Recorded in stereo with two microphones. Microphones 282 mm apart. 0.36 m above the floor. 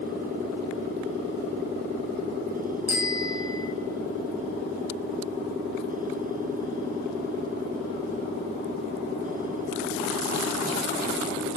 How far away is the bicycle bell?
About 2.5 m.